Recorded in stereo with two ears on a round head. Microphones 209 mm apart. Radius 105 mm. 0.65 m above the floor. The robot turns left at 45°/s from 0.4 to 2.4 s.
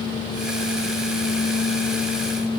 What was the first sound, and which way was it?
Only background noise.